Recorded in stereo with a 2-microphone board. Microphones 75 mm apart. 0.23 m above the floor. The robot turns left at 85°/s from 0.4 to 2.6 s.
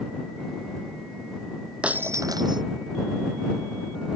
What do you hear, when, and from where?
1.8 s breaking glass: 15° right; by 2.6 s 80° right